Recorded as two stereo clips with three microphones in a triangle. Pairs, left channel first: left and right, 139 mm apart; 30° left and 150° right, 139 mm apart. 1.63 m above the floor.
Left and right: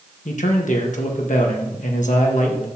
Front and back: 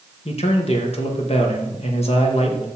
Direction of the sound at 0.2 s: 70° left.